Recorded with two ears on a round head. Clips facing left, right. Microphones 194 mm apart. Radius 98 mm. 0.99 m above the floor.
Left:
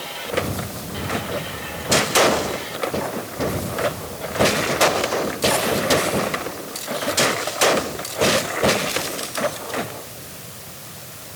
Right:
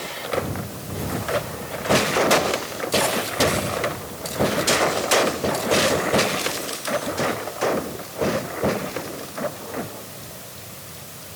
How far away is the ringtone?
I don't hear a ringtone.